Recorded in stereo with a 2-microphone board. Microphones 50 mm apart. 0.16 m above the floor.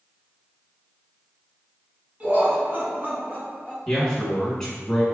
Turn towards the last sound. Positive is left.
turn(degrees=10)  # may be behind; listen again after turning